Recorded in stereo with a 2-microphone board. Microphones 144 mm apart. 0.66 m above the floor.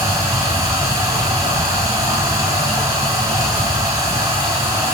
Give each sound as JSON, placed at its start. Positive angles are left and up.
{"t": 0.0, "sound": "running water", "side_deg": -25, "distance_m": 8.0}